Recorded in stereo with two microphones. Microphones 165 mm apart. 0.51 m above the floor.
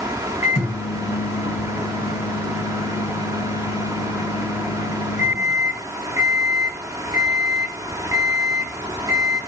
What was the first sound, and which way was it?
A microwave, 45° left (ahead or behind).